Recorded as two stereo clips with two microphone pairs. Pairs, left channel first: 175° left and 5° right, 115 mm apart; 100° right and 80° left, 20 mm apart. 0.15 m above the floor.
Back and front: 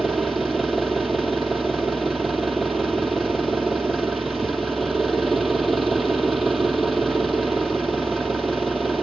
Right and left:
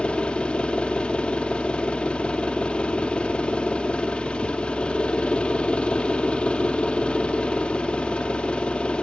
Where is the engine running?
95° right, 2 m.